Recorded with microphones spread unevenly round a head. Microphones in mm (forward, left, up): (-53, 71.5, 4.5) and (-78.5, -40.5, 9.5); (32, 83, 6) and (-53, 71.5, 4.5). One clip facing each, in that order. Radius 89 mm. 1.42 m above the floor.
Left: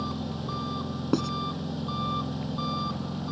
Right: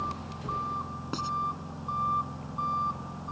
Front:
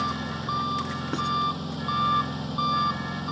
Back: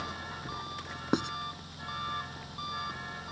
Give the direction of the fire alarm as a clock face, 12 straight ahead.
No fire alarm in this recording.